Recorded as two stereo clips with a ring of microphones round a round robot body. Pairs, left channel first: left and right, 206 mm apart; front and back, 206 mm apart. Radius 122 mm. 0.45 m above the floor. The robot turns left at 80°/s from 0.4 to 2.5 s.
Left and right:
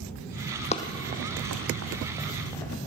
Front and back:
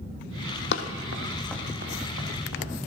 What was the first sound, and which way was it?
Running footsteps, 30° left.